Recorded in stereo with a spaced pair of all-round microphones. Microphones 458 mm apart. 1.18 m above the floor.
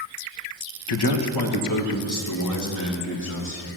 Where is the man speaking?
60° left (ahead or behind), 1.1 m; by 3.6 s 35° left (ahead or behind), 3 m.